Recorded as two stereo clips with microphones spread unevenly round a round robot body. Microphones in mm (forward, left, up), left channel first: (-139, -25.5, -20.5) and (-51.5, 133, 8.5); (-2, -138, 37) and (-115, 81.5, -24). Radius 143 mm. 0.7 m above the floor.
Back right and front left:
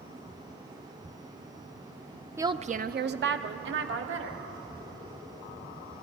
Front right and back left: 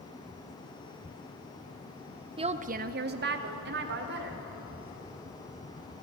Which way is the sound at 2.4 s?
145° left.